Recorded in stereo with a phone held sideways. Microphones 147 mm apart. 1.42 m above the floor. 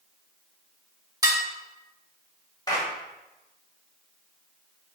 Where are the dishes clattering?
25° right (ahead or behind), 1.6 m.